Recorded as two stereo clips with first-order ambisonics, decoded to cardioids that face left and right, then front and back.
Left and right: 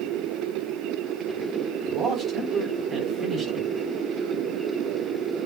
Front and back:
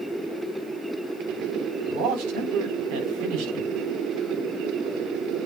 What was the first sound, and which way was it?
A man speaking, 170° right.